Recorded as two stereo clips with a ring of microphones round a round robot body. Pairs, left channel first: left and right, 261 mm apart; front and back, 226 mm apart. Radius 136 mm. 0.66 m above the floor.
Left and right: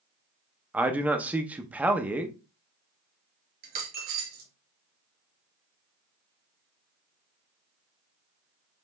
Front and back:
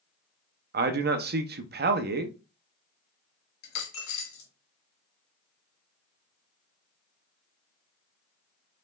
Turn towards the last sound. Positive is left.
turn(degrees=-30)